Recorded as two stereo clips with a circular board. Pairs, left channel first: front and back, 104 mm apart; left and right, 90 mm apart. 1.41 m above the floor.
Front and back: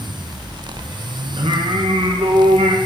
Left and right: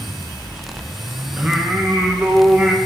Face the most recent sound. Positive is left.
turn(degrees=-165)